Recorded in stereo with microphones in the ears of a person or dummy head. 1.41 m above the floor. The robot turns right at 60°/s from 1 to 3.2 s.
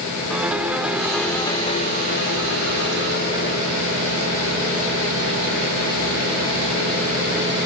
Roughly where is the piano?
Ahead.